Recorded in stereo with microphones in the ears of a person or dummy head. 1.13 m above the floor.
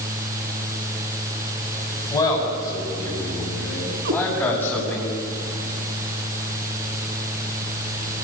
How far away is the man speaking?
About 7 m.